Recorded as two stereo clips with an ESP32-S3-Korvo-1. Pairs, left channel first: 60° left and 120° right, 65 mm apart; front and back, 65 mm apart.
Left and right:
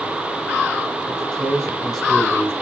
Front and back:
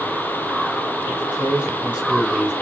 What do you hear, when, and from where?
1.1 s a man speaking: 120° left, 1.6 m; by 2.5 s 135° right, 1.3 m